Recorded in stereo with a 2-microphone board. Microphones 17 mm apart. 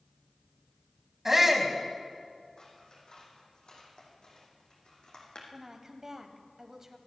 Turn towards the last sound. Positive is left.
turn(degrees=-30)  # may be behind; listen again after turning